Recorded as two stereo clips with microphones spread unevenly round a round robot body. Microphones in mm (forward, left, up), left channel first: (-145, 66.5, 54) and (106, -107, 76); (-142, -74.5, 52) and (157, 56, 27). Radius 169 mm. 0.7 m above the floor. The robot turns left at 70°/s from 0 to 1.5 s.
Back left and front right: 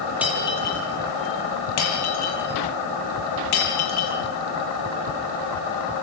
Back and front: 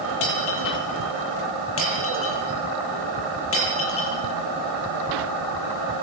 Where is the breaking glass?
120° right, 9.5 m; by 4.2 s 150° left, 9.5 m.